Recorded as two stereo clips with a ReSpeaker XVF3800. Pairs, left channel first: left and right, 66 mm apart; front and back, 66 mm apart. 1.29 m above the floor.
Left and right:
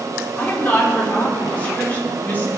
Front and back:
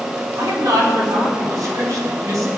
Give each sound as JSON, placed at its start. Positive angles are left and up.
{"t": 0.4, "sound": "a woman speaking", "azimuth_deg": 155, "distance_m": 4.5}